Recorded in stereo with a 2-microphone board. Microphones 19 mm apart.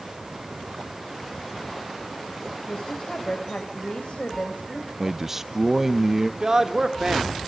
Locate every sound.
2.7 s a woman speaking: 75° left (ahead or behind), 4 m
5.0 s a man speaking: 20° right (ahead or behind), 0.8 m
6.4 s a man speaking: 40° right (ahead or behind), 2.5 m